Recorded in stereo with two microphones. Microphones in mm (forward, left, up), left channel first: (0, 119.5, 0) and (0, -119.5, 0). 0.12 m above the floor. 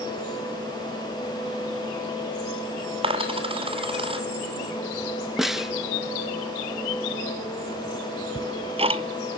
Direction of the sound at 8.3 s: 25° right (ahead or behind).